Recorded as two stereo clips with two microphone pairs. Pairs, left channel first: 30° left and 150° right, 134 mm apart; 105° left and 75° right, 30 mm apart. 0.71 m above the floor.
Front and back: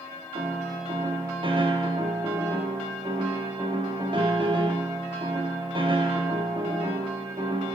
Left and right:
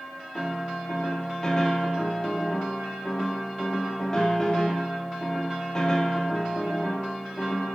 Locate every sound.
0.3 s a piano: 170° left, 1.5 m